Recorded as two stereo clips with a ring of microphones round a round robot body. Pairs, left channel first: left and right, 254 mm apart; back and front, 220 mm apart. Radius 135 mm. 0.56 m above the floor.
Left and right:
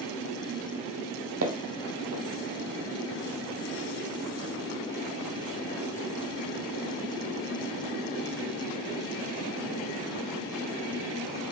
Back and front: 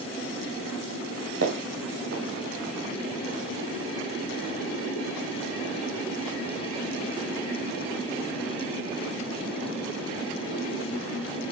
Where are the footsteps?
50° right, 1.7 m.